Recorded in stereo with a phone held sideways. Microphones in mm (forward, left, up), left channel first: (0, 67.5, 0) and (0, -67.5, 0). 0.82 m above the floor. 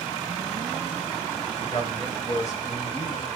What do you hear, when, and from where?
1.6 s a man speaking: 60° left (ahead or behind), 1.9 m; by 3.3 s 35° left (ahead or behind), 1.2 m